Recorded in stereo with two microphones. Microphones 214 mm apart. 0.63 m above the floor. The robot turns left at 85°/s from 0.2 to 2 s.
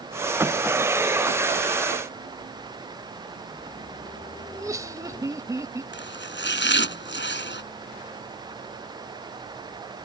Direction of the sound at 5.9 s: 60° left (ahead or behind).